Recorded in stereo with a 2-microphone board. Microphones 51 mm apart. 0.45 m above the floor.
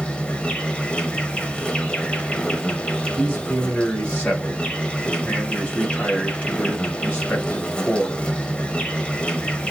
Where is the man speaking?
25° left (ahead or behind), 2 m.